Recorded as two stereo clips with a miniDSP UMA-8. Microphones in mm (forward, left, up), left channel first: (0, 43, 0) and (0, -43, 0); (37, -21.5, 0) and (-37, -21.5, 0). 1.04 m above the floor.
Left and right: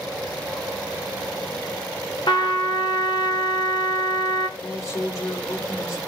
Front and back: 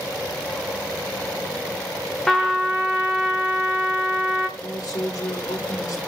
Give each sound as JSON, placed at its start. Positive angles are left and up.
{"t": 2.3, "sound": "a trumpet", "azimuth_deg": 90, "distance_m": 1.1}
{"t": 4.6, "sound": "a man speaking", "azimuth_deg": 40, "distance_m": 2.5}